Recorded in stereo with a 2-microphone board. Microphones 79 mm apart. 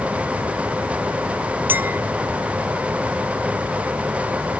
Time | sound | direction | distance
1.7 | a clink | 25° right (ahead or behind) | ?